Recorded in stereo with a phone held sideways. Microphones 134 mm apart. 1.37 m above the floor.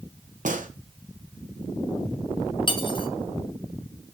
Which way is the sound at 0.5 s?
65° right (ahead or behind).